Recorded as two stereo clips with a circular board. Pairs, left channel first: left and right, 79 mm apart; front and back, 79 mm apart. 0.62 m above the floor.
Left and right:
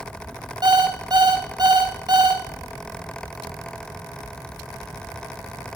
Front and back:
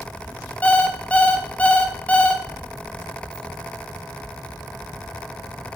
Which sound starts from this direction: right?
An alarm clock, at 0.6 s.